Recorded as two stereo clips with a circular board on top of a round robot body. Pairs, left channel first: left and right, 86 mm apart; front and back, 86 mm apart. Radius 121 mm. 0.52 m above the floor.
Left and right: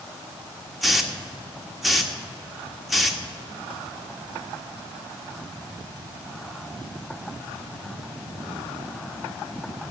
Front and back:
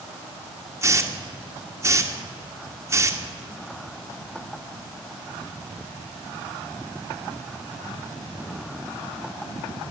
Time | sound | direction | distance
0.8 | a hiss | straight behind | 1.5 m